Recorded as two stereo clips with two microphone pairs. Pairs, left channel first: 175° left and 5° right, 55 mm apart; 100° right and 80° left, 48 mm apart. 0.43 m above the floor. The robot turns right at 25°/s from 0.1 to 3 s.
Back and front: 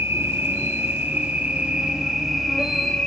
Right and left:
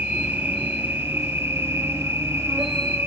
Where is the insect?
30° left, 1.1 m; by 3.1 s 100° left, 1.1 m.